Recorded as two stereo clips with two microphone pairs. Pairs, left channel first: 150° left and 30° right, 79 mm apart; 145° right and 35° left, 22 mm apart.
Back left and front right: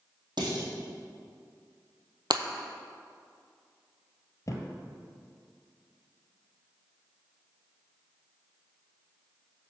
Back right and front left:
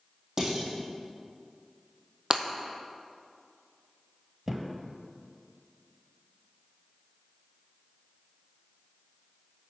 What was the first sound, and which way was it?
Dishes clattering, 30° right.